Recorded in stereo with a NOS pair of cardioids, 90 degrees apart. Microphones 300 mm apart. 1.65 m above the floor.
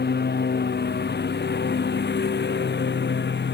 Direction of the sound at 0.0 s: 35° left.